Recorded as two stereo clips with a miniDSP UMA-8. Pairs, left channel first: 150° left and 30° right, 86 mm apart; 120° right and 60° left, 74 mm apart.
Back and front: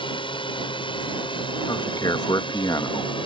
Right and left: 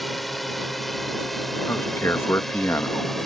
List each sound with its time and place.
0.0 s a drone: 150° left
1.7 s a man speaking: 175° right